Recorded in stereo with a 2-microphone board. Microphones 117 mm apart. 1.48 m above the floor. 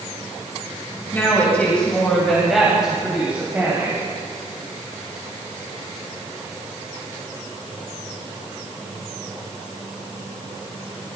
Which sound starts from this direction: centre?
A woman speaking, at 1.1 s.